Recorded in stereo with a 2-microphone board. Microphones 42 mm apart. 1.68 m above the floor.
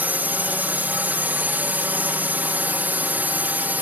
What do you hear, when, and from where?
0.0 s a drone: 45° right (ahead or behind)